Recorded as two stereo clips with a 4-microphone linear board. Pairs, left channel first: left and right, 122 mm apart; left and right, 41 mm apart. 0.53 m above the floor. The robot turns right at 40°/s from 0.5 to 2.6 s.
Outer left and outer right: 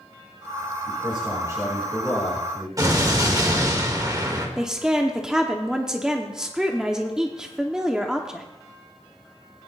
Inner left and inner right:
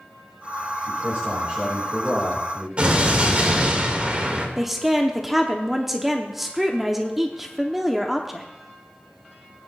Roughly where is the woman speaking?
Centre.